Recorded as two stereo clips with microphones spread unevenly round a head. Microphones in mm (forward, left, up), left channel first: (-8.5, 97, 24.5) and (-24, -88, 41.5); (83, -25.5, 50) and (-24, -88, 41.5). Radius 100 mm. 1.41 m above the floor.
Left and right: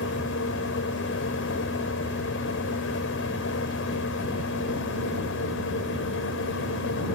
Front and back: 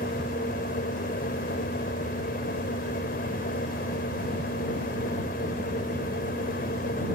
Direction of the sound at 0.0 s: 55° left.